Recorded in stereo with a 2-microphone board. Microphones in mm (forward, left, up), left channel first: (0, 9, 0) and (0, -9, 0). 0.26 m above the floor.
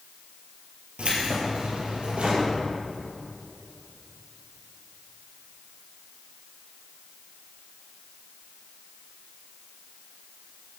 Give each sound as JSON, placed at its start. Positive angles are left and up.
{"t": 1.0, "sound": "keys jangling", "side_deg": -75, "distance_m": 4.0}